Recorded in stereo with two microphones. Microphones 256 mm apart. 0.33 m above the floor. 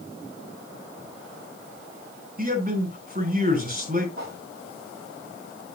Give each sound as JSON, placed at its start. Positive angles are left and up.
{"t": 2.4, "sound": "a man speaking", "side_deg": -35, "distance_m": 3.5}
{"t": 4.2, "sound": "a whoosh", "side_deg": -55, "distance_m": 3.5}